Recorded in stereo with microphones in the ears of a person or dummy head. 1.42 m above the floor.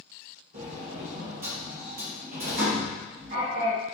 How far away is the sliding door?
About 2 m.